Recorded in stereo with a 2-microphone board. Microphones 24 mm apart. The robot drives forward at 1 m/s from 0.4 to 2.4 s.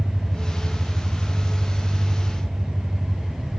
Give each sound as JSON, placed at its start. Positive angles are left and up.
{"t": 0.0, "sound": "an engine running", "side_deg": -55, "distance_m": 3.5}